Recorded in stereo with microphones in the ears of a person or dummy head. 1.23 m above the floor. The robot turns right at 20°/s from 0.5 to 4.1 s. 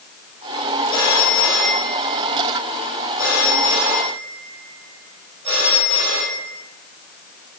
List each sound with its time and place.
0.9 s a phone ringing: 155° left, 4.5 m; by 6.6 s 140° right, 4.5 m